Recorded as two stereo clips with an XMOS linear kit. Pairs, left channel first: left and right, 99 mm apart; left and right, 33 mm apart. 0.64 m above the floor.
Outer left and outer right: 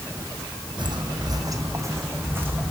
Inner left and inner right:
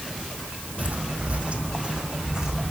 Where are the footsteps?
55° right (ahead or behind), 1.5 m; by 2.7 s 20° right (ahead or behind), 2 m.